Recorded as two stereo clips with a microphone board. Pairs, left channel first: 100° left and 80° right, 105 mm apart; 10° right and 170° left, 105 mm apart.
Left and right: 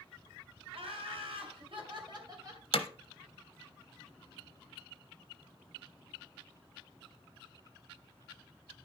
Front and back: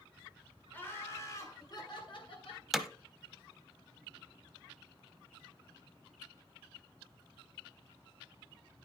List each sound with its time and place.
0.7 s laughter: 80° right, 3 m; by 2.6 s 25° right, 2.5 m
2.7 s hammering: 80° left, 0.8 m